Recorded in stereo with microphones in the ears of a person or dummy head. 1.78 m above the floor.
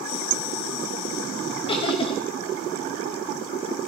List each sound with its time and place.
1.7 s laughter: 30° left (ahead or behind), 3 m